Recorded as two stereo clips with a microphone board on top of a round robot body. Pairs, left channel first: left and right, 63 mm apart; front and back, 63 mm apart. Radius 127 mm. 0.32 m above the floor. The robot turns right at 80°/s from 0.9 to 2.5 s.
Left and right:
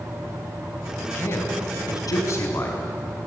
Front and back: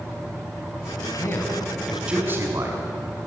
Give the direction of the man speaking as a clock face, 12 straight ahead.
11 o'clock.